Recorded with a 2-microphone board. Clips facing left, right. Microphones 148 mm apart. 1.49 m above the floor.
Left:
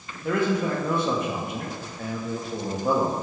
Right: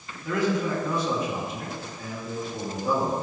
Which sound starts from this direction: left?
A man speaking, at 0.2 s.